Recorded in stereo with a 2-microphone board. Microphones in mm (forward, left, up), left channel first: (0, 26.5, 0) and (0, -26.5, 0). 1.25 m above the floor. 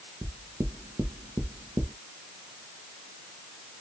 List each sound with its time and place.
0.2 s knocking: 80° right, 0.5 m